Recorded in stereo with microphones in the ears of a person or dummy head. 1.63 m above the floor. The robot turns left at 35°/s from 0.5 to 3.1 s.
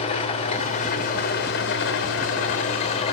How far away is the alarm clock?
No alarm clock in this recording.